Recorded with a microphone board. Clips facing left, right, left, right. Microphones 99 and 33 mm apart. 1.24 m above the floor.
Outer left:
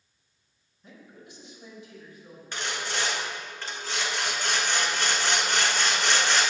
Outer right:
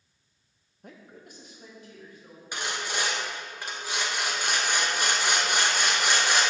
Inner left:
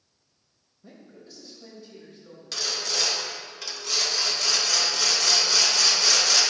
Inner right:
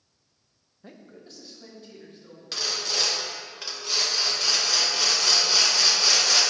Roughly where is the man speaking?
Right.